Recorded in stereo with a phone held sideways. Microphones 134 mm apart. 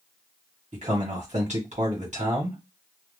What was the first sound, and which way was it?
A man speaking, 50° right (ahead or behind).